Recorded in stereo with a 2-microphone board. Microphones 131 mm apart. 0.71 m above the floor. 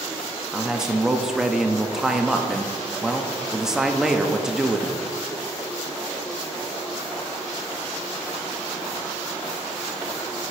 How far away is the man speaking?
About 0.5 m.